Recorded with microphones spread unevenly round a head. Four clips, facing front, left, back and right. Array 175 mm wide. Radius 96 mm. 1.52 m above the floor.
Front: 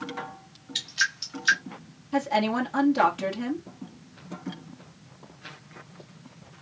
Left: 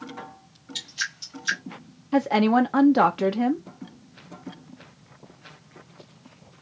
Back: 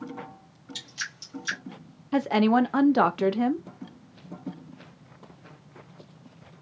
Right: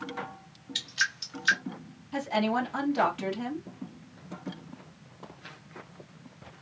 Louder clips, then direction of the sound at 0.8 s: Right 3 dB, front 11 dB; 135° right.